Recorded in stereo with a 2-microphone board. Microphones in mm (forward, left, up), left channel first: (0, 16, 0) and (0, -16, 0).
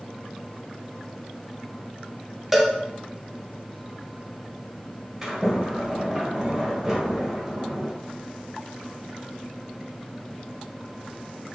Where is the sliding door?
20° right (ahead or behind), 1.4 m.